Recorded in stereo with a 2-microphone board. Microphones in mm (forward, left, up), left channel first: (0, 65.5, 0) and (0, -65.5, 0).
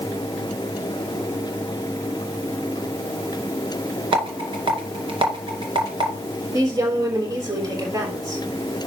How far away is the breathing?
No breathing in this recording.